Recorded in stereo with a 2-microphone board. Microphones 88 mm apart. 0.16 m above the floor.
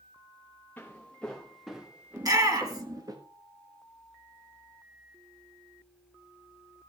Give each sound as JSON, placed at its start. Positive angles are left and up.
{"t": 0.8, "sound": "footsteps", "side_deg": 20, "distance_m": 4.0}
{"t": 2.2, "sound": "a shout", "side_deg": -45, "distance_m": 2.5}